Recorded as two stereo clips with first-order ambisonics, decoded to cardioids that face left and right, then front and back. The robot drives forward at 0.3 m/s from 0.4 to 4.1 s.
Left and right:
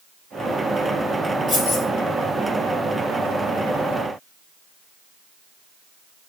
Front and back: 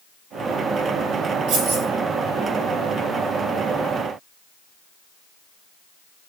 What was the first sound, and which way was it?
Keys jangling, straight behind.